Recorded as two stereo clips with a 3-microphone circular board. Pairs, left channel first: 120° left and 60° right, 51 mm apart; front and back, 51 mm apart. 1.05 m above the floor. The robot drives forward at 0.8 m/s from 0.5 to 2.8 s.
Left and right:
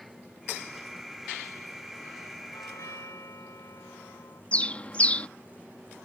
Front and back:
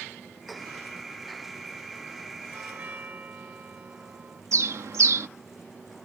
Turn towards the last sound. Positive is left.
turn(degrees=-175)